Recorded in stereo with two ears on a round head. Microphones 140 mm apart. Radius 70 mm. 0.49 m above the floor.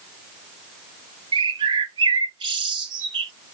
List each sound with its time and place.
1.3 s a bird: 30° right (ahead or behind), 0.7 m